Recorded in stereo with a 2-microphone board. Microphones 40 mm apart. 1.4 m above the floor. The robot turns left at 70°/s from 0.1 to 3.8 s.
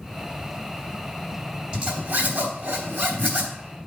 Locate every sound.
1.7 s a zipper: 20° right (ahead or behind), 3 m; by 3.5 s 30° right (ahead or behind), 3 m